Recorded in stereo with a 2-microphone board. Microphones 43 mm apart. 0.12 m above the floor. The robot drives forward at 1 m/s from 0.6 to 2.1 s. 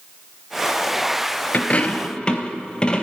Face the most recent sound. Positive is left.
turn(degrees=25)  # may be behind; listen again after turning